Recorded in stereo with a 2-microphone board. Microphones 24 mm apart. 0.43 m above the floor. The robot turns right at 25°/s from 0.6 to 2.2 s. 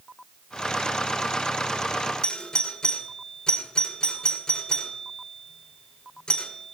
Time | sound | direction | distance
2.2 | a doorbell | 35° left (ahead or behind) | 1.7 m